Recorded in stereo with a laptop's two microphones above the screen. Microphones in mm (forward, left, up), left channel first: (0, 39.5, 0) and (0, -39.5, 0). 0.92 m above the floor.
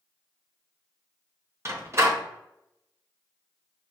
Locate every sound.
1.6 s a door slam: 35° right (ahead or behind), 0.8 m